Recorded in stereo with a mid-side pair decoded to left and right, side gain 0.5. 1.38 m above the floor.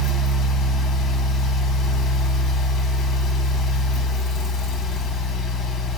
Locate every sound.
0.0 s a fan: 60° left, 1.2 m